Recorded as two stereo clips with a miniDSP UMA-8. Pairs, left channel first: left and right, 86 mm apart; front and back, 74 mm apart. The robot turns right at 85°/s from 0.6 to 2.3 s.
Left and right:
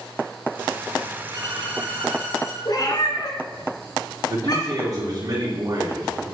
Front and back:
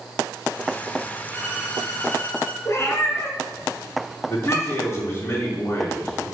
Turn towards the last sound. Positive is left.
turn(degrees=-45)